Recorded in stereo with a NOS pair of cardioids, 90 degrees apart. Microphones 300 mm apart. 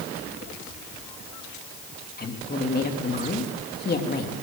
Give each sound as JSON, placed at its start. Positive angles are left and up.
{"t": 2.2, "sound": "a woman speaking", "azimuth_deg": 30, "distance_m": 3.5}